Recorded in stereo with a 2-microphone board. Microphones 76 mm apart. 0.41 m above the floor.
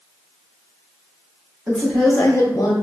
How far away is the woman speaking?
About 1.0 m.